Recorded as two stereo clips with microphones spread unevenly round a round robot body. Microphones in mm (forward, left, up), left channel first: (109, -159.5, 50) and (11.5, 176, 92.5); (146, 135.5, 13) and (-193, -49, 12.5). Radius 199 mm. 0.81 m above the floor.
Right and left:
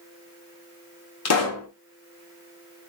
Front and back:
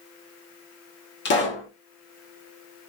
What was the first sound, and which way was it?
A pop, 35° right.